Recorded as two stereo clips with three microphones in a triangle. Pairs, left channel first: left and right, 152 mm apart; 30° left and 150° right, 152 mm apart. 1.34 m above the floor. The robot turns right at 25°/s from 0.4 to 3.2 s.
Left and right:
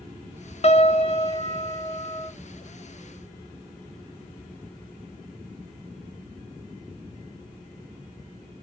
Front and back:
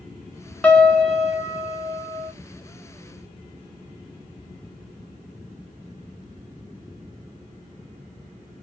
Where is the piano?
110° left, 1.1 m; by 2.3 s 150° left, 1.1 m.